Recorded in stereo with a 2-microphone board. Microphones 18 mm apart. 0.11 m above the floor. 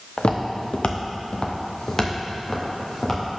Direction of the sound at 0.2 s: 80° left.